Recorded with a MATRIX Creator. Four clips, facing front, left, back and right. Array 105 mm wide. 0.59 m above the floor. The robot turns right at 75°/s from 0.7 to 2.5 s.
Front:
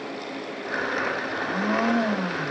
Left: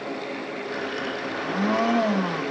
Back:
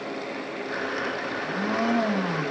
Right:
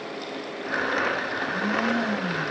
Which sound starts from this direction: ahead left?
A blender, at 1.3 s.